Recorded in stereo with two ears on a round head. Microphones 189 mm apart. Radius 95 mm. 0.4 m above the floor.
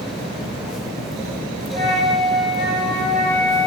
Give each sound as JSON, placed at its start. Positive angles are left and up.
{"t": 1.7, "sound": "a flute", "side_deg": -55, "distance_m": 1.7}